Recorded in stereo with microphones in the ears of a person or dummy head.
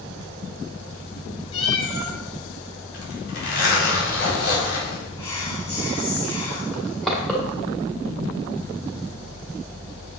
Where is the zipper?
80° left, 4.5 m.